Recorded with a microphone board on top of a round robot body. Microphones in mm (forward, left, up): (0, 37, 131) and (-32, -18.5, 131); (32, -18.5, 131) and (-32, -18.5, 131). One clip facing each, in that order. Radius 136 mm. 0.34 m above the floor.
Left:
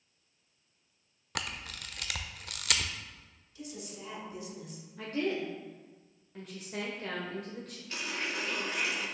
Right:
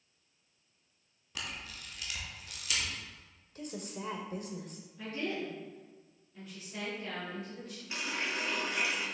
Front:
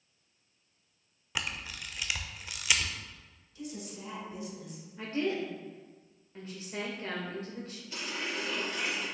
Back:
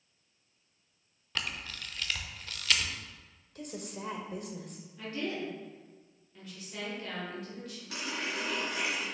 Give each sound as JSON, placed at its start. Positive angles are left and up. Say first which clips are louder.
{"t": 1.4, "sound": "a camera shutter", "louder": "left 4 dB, front 1 dB", "azimuth_deg": 80, "distance_m": 0.7}
{"t": 3.5, "sound": "a woman speaking", "louder": "right 3 dB, back 1 dB", "azimuth_deg": -155, "distance_m": 1.5}
{"t": 5.0, "sound": "a woman speaking", "louder": "left 4 dB, front 4 dB", "azimuth_deg": 50, "distance_m": 1.5}
{"t": 7.9, "sound": "a running tap", "louder": "even, back 1 dB", "azimuth_deg": 170, "distance_m": 3.0}